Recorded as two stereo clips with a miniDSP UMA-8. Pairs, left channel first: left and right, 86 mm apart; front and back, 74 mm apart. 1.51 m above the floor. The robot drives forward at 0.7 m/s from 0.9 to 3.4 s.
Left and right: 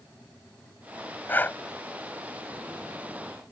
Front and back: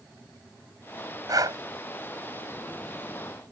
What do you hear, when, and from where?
1.3 s breathing: 155° left